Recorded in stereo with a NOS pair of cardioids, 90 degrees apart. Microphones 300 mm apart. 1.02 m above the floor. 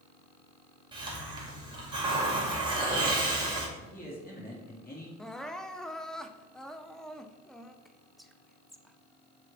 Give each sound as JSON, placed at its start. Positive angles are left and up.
{"t": 0.9, "sound": "a hiss", "azimuth_deg": -15, "distance_m": 2.0}
{"t": 3.8, "sound": "a man speaking", "azimuth_deg": 30, "distance_m": 2.5}
{"t": 5.2, "sound": "crying", "azimuth_deg": 0, "distance_m": 0.5}
{"t": 7.8, "sound": "whispering", "azimuth_deg": 0, "distance_m": 0.8}